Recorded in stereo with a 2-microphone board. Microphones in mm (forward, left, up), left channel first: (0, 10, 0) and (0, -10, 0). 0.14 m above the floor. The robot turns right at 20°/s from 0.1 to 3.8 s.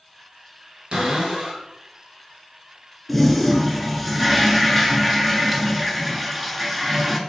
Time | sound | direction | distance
0.9 | a cupboard door | 60° right (ahead or behind) | 1.8 m
3.1 | a toilet flushing | 5° left (ahead or behind) | 0.7 m